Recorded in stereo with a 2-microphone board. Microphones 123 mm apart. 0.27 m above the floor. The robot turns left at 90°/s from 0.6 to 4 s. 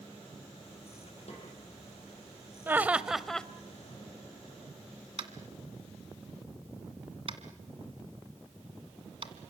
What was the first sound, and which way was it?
A snare drum, 60° left (ahead or behind).